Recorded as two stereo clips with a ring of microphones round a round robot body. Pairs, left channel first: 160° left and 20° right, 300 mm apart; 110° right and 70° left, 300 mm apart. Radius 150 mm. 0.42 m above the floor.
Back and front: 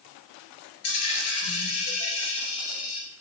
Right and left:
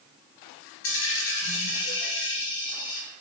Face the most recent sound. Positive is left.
turn(degrees=-165)